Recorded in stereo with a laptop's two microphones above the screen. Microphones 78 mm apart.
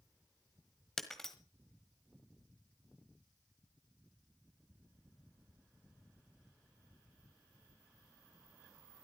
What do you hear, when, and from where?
1.0 s breaking glass: 5° left (ahead or behind), 1.5 m